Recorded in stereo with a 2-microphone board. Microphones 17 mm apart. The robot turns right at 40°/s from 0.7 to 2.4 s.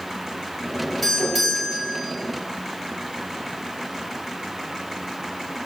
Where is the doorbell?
175° left, 3.5 m; by 2.0 s 145° right, 3.5 m.